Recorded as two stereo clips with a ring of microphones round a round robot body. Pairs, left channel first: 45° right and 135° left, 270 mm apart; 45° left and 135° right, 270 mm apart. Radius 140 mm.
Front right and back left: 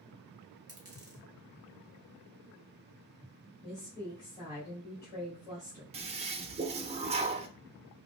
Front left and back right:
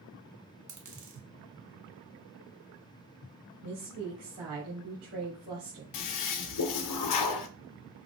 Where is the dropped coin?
150° right, 1.6 m.